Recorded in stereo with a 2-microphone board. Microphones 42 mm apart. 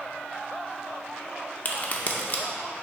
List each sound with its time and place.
1.6 s a crack: 40° left (ahead or behind), 0.7 m